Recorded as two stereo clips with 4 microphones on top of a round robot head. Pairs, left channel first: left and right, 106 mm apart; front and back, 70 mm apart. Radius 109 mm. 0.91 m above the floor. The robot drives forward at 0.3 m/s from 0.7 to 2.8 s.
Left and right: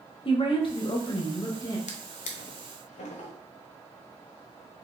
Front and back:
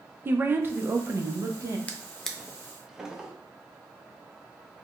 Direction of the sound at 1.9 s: 75° left.